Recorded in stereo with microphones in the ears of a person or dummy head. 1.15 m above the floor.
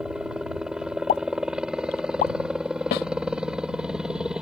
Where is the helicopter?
Centre (ahead or behind).